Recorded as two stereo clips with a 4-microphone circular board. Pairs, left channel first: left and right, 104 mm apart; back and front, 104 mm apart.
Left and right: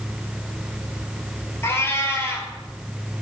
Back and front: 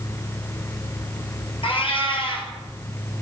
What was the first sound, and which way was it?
A cat meowing, 155° left.